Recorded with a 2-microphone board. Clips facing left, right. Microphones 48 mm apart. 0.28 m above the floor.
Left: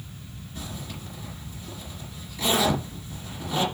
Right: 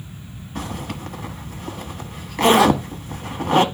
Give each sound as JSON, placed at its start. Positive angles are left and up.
{"t": 0.6, "sound": "a zipper", "side_deg": -65, "distance_m": 1.2}